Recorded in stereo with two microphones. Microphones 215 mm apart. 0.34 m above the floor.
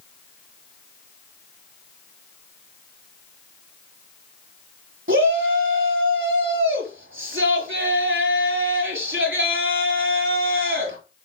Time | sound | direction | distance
5.1 | a shout | 70° right (ahead or behind) | 5.5 m